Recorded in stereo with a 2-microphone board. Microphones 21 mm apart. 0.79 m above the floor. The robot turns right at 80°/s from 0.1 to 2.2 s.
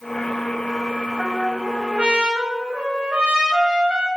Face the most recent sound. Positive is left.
turn(degrees=-100)